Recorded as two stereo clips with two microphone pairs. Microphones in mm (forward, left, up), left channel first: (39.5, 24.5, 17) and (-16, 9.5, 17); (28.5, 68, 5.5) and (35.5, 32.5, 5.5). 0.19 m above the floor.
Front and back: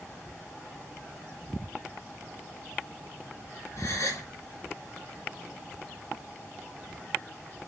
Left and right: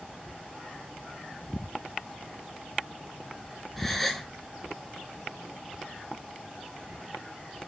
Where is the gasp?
20° left, 1.2 m.